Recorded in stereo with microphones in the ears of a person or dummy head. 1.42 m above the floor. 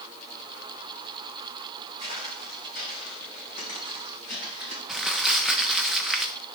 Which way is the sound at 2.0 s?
40° left (ahead or behind).